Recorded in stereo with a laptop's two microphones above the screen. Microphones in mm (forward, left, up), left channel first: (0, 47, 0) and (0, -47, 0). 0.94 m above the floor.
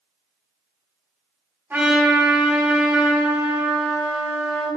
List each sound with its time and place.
1.7 s a trumpet: 25° right (ahead or behind), 4.5 m